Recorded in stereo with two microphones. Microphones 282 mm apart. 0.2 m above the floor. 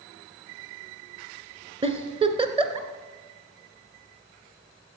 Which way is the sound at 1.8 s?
20° right (ahead or behind).